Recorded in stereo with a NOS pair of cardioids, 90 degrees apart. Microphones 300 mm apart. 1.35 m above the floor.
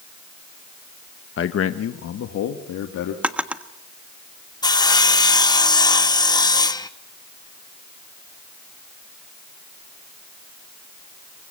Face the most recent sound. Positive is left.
turn(degrees=15)